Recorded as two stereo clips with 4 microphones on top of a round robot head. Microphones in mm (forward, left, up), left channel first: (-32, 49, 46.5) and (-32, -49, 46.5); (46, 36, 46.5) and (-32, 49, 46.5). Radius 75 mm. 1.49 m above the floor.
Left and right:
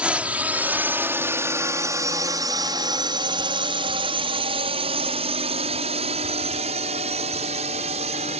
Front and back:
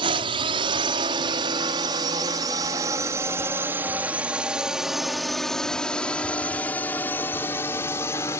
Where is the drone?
165° right; by 8.4 s 75° right.